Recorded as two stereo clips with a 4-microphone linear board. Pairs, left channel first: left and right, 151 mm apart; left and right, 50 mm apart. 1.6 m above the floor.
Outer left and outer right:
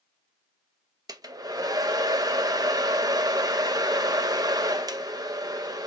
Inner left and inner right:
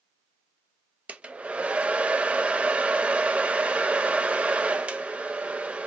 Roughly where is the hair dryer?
Right.